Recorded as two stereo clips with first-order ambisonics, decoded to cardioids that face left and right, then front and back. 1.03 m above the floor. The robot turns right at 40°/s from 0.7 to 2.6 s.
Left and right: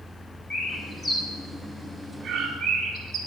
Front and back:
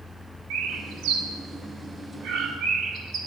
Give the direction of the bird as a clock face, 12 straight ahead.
7 o'clock.